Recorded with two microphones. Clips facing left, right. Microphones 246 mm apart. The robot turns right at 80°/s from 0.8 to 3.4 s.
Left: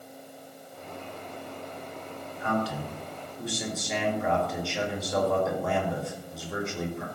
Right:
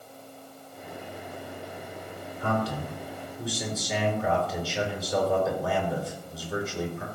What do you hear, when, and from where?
2.4 s a man speaking: 85° right, 4 m; by 7.0 s 5° right, 4 m